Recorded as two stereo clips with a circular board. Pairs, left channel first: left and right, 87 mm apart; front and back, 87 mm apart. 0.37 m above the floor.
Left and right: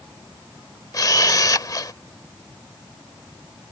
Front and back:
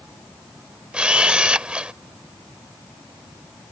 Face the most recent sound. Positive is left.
turn(degrees=105)